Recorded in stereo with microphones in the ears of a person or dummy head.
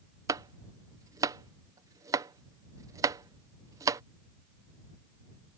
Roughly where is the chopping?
Right.